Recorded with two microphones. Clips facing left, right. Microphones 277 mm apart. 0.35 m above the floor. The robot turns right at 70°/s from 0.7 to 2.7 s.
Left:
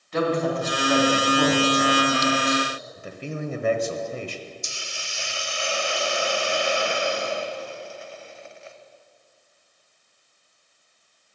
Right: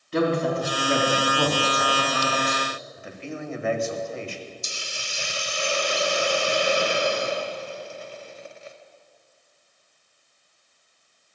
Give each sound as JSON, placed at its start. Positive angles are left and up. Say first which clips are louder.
{"t": 0.1, "sound": "a woman speaking", "louder": "right 1 dB", "azimuth_deg": -40, "distance_m": 3.5}
{"t": 3.0, "sound": "a man speaking", "louder": "left 3 dB", "side_deg": 40, "distance_m": 1.4}
{"t": 4.6, "sound": "a hiss", "louder": "right 1 dB", "side_deg": -45, "distance_m": 0.9}